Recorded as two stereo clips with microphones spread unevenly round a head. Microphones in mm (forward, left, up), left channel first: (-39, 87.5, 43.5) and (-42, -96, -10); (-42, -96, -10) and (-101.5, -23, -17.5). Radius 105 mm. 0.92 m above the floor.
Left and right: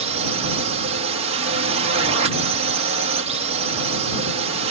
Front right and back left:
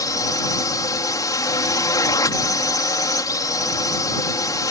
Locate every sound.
0.0 s a drone: 85° right